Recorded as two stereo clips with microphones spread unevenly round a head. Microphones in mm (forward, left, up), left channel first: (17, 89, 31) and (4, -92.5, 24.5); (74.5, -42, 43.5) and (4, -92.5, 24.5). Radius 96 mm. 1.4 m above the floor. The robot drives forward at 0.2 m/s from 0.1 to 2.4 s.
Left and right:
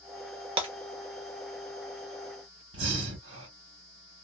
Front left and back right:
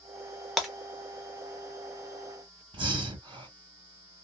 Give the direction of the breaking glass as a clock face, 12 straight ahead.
1 o'clock.